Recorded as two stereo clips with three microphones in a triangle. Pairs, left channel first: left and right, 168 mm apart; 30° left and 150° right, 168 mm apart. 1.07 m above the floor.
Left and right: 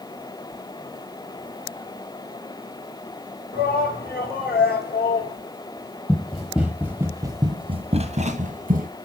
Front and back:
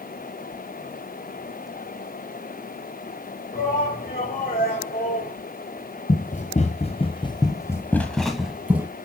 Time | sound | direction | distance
3.5 | a shout | 60° left | 4.5 m
6.1 | running footsteps | 5° left | 2.0 m